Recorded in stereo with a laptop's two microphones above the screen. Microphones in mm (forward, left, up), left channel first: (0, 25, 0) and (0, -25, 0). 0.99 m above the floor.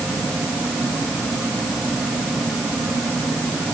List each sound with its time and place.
Only background noise.